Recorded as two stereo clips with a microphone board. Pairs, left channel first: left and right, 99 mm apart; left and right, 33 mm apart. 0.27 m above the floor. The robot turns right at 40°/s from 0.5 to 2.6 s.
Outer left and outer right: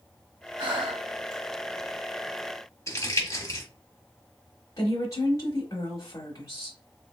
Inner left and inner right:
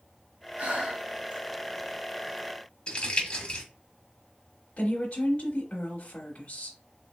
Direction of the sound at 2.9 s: 30° left (ahead or behind).